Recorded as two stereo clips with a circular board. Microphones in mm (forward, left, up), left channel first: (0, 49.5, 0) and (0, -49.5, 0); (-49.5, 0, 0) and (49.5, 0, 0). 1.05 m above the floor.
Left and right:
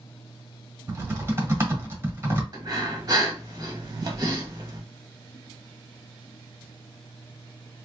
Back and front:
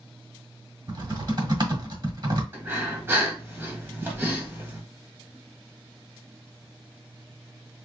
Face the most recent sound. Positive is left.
turn(degrees=-55)